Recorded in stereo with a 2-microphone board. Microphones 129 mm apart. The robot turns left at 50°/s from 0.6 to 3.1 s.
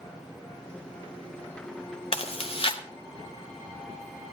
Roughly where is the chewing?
Left.